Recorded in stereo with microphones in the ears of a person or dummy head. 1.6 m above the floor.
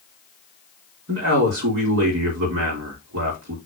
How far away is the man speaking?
About 3.5 m.